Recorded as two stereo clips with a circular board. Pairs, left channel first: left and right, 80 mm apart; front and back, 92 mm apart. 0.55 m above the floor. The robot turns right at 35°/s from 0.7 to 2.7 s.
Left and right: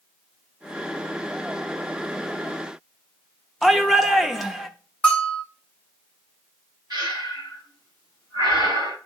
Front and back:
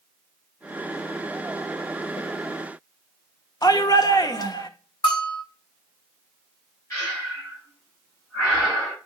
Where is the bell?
15° left, 1.9 m.